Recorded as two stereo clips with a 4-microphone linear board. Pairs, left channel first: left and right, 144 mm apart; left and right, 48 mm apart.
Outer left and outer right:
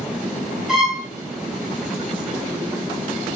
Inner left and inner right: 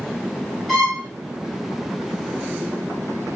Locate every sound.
0.7 s a violin: centre (ahead or behind), 1.9 m